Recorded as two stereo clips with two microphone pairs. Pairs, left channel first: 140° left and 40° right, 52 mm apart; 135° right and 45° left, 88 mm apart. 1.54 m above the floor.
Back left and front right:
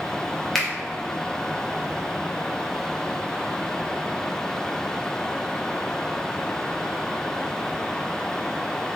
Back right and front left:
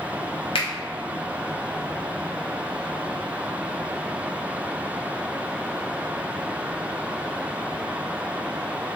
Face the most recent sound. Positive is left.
turn(degrees=-135)